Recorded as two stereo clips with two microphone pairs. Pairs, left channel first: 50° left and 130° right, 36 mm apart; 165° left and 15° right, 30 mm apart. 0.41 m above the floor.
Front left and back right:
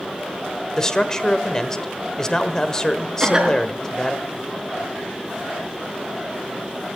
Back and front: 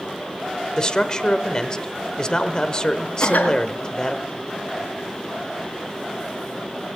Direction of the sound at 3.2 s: 160° left.